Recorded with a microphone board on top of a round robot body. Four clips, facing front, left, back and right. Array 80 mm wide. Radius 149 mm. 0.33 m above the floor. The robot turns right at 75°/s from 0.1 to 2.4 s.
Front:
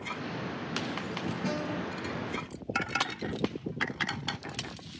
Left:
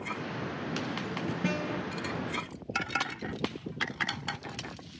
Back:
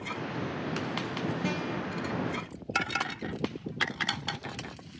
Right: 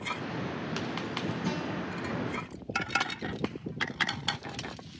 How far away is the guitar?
About 5.5 m.